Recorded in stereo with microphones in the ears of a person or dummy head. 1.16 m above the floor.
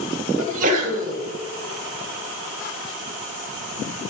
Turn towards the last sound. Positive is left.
turn(degrees=-40)  # may be behind; listen again after turning